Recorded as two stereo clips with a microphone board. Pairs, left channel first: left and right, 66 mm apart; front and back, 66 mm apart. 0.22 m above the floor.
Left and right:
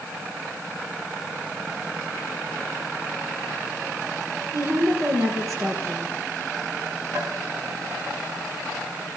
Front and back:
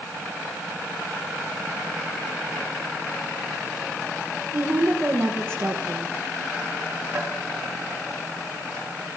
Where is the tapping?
130° right, 3.5 m.